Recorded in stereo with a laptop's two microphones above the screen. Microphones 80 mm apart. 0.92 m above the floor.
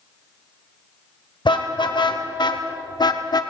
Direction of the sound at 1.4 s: 75° left (ahead or behind).